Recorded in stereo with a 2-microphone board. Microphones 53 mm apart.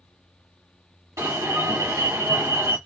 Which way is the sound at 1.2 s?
75° right (ahead or behind).